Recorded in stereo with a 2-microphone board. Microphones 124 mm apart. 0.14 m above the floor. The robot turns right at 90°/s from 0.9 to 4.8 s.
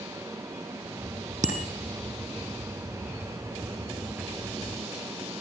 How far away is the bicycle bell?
About 4 m.